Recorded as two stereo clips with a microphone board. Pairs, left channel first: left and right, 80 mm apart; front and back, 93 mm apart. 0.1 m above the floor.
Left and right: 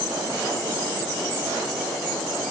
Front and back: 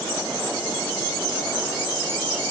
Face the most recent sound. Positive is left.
No sound to turn to.